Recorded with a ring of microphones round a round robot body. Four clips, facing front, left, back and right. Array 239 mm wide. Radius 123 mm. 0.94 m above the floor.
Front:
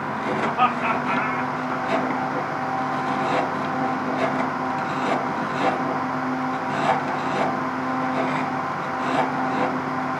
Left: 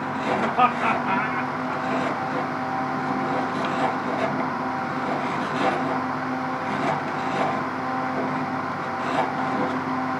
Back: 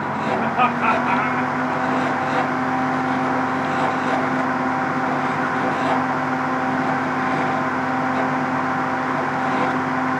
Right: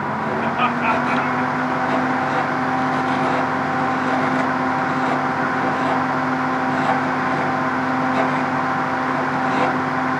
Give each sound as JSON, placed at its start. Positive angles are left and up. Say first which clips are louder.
{"t": 0.4, "sound": "laughter", "louder": "left 1 dB, back 1 dB", "azimuth_deg": 155, "distance_m": 2.0}